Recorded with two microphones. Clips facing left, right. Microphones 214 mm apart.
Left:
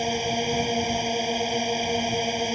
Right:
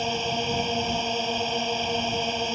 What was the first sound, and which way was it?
A drone, 10° left (ahead or behind).